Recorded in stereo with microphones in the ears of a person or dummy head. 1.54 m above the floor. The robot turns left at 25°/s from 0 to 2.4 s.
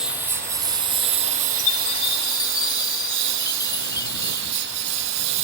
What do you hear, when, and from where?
0.0 s a lawn mower: 5° right; by 5.4 s 65° right
1.6 s a chime: 40° left (ahead or behind); by 5.2 s 20° left (ahead or behind)